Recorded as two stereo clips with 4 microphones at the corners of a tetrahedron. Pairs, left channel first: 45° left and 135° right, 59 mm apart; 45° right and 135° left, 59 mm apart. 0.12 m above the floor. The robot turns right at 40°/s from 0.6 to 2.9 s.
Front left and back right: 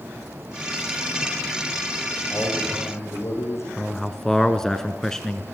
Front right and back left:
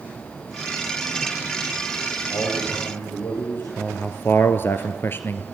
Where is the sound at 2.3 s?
15° right, 7 m; by 3.7 s 10° left, 7 m.